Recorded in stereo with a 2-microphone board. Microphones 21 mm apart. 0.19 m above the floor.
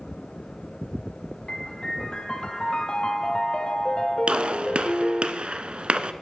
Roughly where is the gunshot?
Right.